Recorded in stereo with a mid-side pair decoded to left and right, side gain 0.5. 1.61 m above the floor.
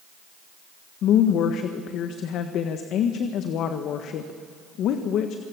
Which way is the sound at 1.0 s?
70° left.